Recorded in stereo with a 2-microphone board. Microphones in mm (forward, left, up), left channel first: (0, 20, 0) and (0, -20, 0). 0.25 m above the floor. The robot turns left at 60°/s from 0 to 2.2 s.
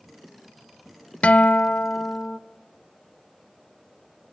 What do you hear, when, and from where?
1.2 s a guitar: 115° left, 0.6 m; by 2.4 s 55° left, 0.6 m